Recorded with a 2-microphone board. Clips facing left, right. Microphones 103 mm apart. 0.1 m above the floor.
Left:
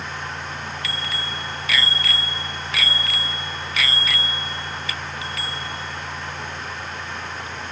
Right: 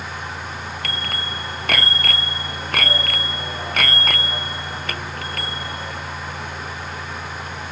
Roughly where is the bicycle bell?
Right.